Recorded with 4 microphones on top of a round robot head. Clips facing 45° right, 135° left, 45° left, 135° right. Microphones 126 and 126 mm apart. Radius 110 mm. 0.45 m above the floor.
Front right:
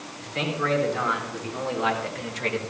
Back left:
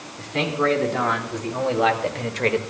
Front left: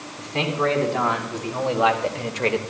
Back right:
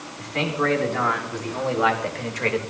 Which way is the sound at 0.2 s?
110° left.